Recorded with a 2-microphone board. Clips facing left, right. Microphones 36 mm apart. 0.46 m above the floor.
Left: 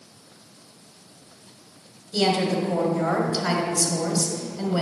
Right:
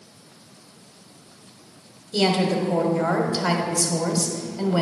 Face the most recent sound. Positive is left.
turn(degrees=-25)  # may be behind; listen again after turning